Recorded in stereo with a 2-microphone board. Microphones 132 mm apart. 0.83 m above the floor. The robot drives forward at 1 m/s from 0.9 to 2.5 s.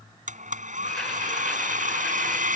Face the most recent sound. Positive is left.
turn(degrees=-90)